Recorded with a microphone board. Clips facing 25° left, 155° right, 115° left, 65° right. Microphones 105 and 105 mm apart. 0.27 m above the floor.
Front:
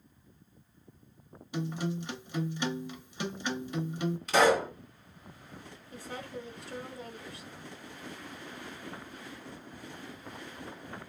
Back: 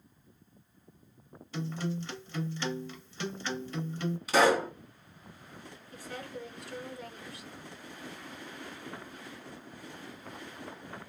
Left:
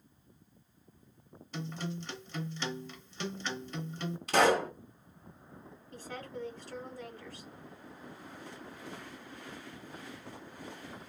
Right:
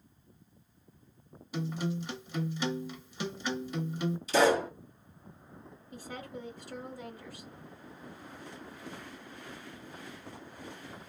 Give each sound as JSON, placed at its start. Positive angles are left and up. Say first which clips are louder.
{"t": 1.5, "sound": "a guitar", "louder": "front 1 dB, right 5 dB", "azimuth_deg": -10, "distance_m": 0.7}
{"t": 4.3, "sound": "a pop", "louder": "even, even", "azimuth_deg": 120, "distance_m": 1.4}
{"t": 5.9, "sound": "a woman speaking", "louder": "front 1 dB, even", "azimuth_deg": 0, "distance_m": 1.0}